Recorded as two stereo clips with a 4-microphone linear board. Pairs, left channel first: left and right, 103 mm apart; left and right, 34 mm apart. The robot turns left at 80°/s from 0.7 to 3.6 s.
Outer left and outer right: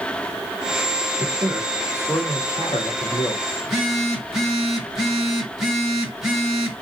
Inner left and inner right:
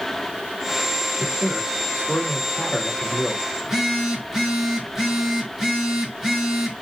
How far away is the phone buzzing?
About 3.5 m.